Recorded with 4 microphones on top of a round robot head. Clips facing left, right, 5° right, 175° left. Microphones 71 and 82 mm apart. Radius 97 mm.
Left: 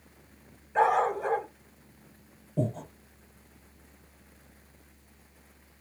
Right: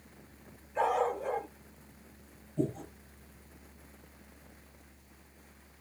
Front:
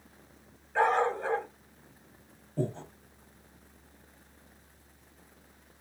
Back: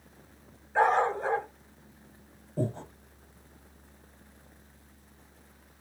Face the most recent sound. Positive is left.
turn(degrees=100)